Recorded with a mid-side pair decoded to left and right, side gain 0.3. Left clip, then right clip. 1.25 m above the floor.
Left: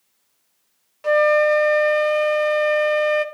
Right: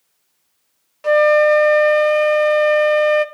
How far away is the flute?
About 0.9 m.